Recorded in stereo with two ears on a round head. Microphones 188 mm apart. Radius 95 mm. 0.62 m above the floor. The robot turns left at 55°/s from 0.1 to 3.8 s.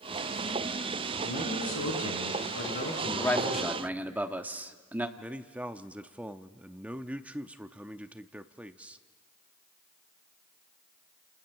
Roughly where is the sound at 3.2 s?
Ahead.